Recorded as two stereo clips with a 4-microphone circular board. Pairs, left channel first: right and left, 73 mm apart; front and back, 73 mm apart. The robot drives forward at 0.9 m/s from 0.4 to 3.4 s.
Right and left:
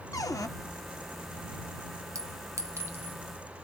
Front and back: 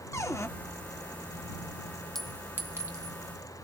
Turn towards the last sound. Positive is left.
turn(degrees=155)